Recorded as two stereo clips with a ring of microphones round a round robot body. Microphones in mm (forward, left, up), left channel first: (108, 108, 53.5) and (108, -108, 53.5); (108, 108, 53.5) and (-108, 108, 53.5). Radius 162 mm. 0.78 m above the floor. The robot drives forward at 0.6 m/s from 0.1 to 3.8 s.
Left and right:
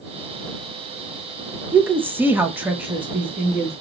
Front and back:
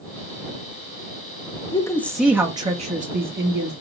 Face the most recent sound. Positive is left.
turn(degrees=-175)